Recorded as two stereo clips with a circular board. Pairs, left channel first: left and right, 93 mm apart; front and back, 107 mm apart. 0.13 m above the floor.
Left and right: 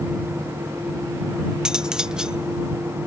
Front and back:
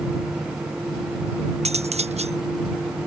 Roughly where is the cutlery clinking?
Behind.